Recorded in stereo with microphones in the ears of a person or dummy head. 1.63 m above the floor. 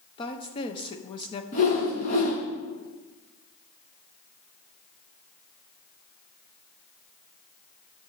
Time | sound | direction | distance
0.2 | a woman speaking | 30° left (ahead or behind) | 1.0 m
1.5 | a whoosh | 45° left (ahead or behind) | 4.5 m